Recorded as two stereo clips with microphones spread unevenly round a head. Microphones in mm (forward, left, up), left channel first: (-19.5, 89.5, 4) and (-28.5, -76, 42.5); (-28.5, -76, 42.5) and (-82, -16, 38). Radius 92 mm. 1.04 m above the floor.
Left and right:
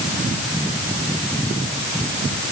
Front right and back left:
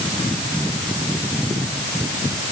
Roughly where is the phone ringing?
No phone ringing in this recording.